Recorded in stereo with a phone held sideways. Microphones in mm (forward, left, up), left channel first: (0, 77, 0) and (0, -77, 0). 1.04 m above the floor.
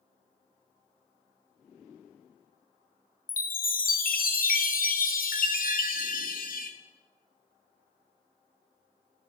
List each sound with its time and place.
3.3 s a chime: 65° left (ahead or behind), 0.6 m